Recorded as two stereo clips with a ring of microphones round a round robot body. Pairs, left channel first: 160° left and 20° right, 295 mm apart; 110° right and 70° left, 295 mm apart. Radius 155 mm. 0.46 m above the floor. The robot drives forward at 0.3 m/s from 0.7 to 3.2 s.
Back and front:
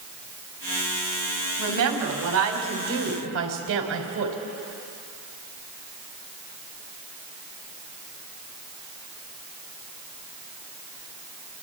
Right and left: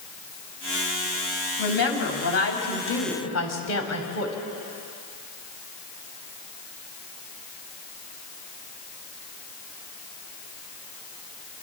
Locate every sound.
1.6 s a woman speaking: 60° right, 3.5 m; by 4.3 s 70° right, 3 m